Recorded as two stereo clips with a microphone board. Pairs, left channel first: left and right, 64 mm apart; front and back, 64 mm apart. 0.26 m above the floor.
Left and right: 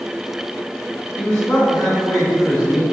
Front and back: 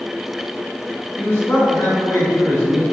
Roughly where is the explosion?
I don't hear an explosion.